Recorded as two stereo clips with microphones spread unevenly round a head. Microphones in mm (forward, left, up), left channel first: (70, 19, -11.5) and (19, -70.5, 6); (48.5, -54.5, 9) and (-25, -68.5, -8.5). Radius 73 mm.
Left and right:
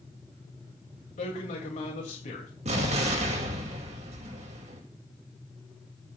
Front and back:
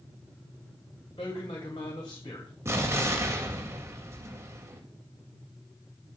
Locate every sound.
1.2 s a man speaking: 60° left, 2.5 m
2.6 s an explosion: 115° right, 2.5 m